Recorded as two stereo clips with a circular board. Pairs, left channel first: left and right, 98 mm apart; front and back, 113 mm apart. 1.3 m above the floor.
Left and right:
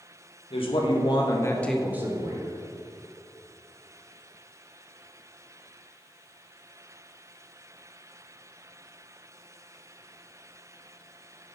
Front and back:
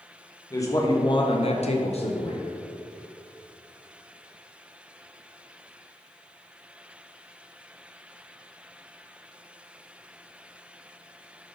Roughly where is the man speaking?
Ahead left.